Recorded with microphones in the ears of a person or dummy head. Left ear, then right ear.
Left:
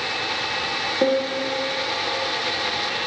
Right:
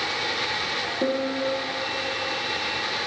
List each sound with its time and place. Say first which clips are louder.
1.0 s a piano: left 5 dB; 50° left (ahead or behind), 1.2 m